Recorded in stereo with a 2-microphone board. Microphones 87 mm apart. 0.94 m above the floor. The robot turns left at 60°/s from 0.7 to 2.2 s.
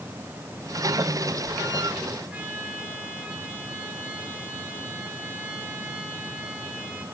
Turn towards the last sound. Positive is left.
turn(degrees=-15)  # may be behind; listen again after turning